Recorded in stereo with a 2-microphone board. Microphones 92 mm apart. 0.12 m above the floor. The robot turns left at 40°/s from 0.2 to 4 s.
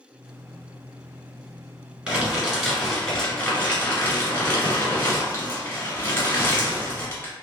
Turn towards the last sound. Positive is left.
turn(degrees=20)  # may be behind; listen again after turning